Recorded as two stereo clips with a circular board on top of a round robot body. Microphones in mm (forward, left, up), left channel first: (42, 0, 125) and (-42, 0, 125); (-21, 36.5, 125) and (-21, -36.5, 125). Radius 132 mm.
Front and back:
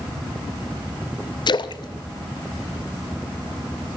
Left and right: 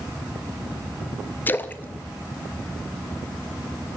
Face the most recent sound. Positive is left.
turn(degrees=25)